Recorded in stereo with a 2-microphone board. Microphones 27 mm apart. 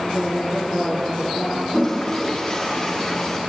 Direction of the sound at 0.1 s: 35° left (ahead or behind).